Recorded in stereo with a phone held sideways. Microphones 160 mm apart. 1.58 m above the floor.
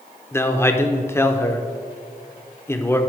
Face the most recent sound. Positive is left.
turn(degrees=15)  # may be behind; listen again after turning